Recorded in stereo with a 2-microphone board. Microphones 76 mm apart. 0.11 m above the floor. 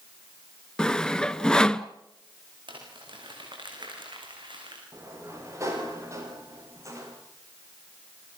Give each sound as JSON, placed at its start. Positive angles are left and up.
{"t": 0.8, "sound": "sawing", "side_deg": 10, "distance_m": 0.9}
{"t": 2.7, "sound": "crumpling", "side_deg": -75, "distance_m": 8.0}
{"t": 4.9, "sound": "a sliding door", "side_deg": -40, "distance_m": 8.5}